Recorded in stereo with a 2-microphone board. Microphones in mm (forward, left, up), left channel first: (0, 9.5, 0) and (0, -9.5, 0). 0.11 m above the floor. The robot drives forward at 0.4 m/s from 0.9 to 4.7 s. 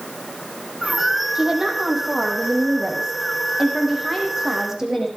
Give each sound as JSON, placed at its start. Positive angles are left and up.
{"t": 1.4, "sound": "a woman speaking", "side_deg": -30, "distance_m": 4.0}